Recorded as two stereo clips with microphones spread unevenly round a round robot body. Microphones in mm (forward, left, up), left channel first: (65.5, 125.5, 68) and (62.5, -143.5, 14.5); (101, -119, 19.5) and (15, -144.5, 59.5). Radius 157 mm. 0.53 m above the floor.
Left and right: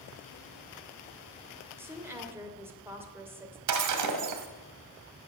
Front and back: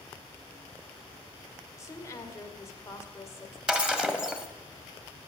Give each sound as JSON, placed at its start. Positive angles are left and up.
{"t": 1.8, "sound": "a woman speaking", "azimuth_deg": -15, "distance_m": 2.5}
{"t": 3.7, "sound": "breaking glass", "azimuth_deg": -80, "distance_m": 1.6}